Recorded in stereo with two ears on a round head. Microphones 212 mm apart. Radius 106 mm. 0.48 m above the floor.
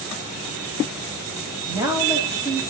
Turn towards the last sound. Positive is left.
turn(degrees=-15)  # may be behind; listen again after turning